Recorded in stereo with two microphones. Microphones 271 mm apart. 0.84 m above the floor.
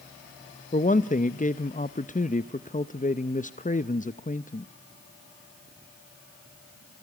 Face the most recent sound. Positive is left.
turn(degrees=30)  # may be behind; listen again after turning